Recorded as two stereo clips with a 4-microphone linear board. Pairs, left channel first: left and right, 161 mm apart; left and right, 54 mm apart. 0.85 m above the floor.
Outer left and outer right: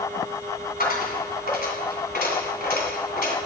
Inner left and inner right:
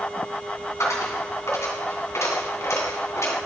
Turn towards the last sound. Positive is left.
turn(degrees=75)  # may be behind; listen again after turning